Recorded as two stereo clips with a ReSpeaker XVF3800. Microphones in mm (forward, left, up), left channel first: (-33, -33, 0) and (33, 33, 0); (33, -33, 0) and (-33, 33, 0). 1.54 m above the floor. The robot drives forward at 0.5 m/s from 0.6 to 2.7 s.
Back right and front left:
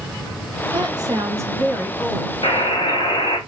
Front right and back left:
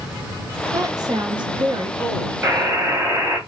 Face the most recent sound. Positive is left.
turn(degrees=-160)